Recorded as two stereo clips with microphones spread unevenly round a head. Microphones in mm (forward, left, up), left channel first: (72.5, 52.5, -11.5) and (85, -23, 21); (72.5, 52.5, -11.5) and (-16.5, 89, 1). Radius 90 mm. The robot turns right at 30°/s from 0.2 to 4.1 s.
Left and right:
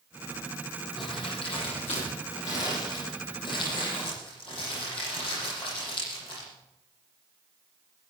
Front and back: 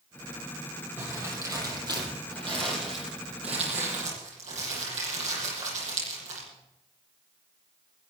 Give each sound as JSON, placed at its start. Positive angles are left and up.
{"t": 1.0, "sound": "crumpling", "azimuth_deg": 90, "distance_m": 9.5}